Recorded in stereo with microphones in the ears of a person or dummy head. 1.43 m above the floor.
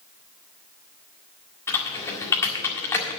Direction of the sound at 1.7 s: 20° left (ahead or behind).